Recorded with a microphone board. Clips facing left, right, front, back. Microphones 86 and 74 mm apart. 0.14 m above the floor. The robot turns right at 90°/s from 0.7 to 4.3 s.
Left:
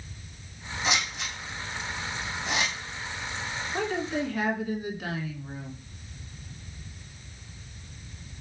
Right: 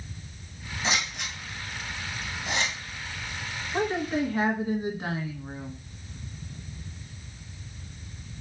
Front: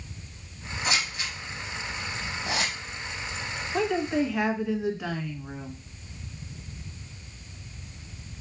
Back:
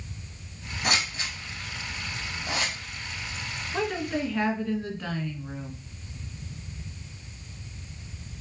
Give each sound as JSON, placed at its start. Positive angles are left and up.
{"t": 0.8, "sound": "scissors", "azimuth_deg": -150, "distance_m": 3.0}
{"t": 3.7, "sound": "a woman speaking", "azimuth_deg": -120, "distance_m": 1.2}